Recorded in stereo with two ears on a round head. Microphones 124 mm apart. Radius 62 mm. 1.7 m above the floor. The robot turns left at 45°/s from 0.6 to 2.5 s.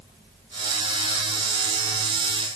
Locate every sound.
Only background noise.